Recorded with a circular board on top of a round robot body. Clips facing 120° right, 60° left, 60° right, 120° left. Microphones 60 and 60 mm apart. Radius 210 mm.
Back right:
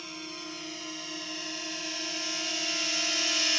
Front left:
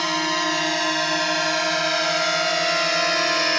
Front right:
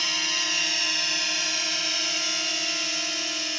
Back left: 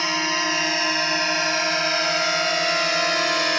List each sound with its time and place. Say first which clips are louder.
0.0 s a drone: front left 19 dB, back left 7 dB; 65° left; by 3.6 s 100° left